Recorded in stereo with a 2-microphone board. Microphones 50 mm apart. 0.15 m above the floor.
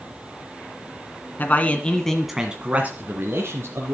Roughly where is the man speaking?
Left.